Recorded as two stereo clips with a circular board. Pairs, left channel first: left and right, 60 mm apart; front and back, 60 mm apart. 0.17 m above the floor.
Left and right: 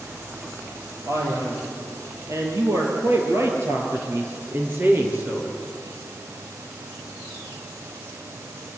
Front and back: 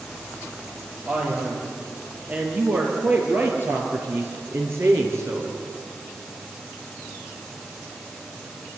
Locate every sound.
1.0 s a man speaking: 110° right, 5.5 m; by 5.5 s 150° right, 3.5 m